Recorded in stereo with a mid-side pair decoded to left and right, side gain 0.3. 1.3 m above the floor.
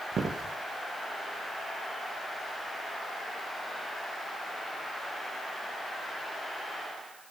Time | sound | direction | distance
0.1 | footsteps | 65° right | 4.5 m